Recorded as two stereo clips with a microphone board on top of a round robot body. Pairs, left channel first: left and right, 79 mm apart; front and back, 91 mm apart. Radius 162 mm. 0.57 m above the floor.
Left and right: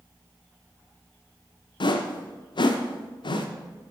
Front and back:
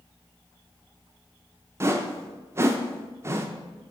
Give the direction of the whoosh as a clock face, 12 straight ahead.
8 o'clock.